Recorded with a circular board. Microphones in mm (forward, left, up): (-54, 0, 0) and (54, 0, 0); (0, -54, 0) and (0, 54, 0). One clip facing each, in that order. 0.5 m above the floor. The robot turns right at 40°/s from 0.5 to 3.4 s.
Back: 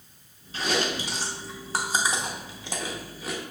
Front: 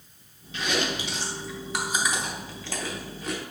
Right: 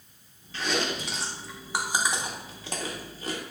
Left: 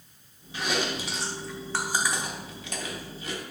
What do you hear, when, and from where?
0.5 s chewing: 155° left, 0.7 m; by 3.4 s 90° right, 0.7 m